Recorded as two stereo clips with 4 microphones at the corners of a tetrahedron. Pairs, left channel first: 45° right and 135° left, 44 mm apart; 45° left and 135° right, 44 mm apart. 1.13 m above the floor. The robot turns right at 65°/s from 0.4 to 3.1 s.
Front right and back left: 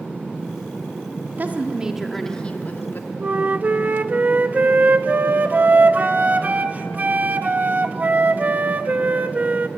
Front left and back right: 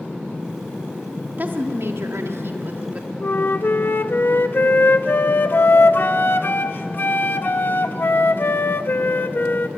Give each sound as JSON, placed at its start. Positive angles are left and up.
{"t": 1.4, "sound": "a woman speaking", "azimuth_deg": 180, "distance_m": 1.9}
{"t": 3.2, "sound": "a flute", "azimuth_deg": 85, "distance_m": 0.8}